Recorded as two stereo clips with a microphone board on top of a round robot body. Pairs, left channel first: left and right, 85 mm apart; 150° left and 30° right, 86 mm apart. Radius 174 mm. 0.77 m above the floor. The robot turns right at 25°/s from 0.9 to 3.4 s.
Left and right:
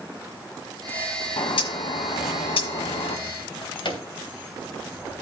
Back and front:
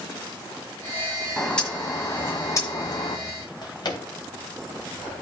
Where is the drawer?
115° left, 3 m.